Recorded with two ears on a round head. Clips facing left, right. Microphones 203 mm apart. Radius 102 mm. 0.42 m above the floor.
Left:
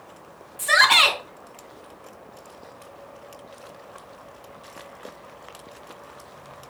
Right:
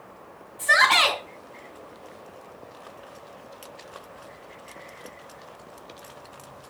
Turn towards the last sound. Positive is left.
turn(degrees=35)  # may be behind; listen again after turning